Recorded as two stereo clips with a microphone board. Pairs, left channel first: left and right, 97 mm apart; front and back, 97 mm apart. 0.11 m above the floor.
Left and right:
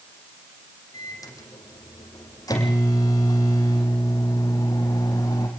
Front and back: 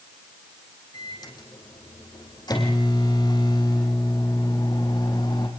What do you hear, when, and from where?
0.9 s a microwave: 40° left, 5 m